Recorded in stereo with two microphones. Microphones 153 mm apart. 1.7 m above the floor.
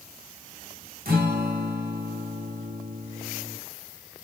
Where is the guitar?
80° right, 2.5 m.